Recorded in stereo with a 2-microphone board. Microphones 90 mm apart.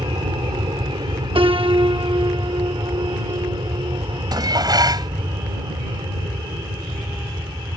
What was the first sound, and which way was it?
An aircraft, 55° right (ahead or behind).